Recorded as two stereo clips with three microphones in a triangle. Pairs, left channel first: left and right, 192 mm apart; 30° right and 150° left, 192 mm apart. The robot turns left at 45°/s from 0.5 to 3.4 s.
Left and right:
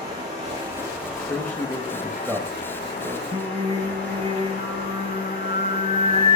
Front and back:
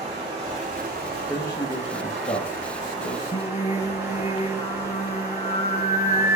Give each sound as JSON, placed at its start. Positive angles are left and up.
{"t": 0.0, "sound": "running water", "azimuth_deg": -150, "distance_m": 4.5}
{"t": 1.3, "sound": "a man speaking", "azimuth_deg": 25, "distance_m": 1.1}
{"t": 3.3, "sound": "singing", "azimuth_deg": -55, "distance_m": 1.0}